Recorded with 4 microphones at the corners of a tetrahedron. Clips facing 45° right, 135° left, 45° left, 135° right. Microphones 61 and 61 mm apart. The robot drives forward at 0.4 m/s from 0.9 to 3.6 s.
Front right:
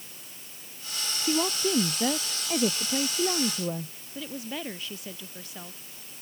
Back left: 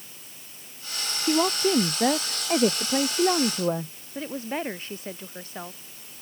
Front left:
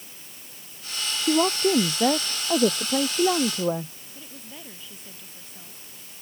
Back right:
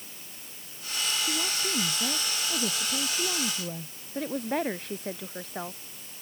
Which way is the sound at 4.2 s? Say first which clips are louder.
Back left 5 dB, back right 17 dB; 170° right.